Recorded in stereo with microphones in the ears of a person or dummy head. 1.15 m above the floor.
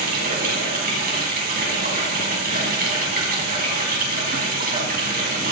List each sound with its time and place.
0.0 s running water: 55° right (ahead or behind), 4.5 m